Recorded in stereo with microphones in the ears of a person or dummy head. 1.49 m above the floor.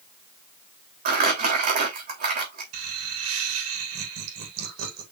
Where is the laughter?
80° right, 4 m.